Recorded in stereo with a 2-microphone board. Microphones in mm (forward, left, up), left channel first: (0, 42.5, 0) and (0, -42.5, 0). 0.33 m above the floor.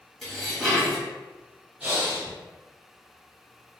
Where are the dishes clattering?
5° left (ahead or behind), 1.2 m.